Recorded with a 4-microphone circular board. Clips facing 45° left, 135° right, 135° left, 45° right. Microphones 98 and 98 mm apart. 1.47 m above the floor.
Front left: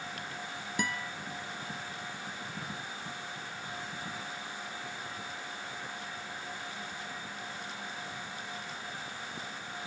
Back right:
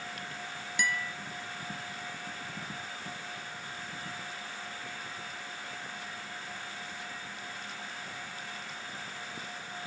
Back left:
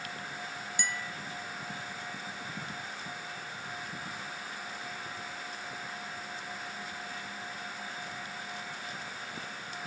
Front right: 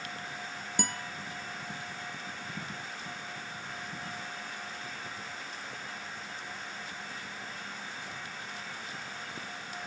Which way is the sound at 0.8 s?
10° right.